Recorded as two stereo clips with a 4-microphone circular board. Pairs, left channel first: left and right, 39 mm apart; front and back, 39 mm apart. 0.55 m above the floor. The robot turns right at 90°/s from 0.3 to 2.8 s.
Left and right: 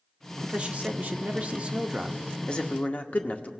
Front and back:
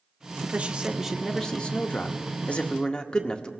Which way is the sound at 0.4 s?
155° right.